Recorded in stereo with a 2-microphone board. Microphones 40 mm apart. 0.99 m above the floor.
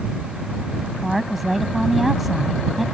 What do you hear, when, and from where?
1.0 s a woman speaking: 5° right (ahead or behind)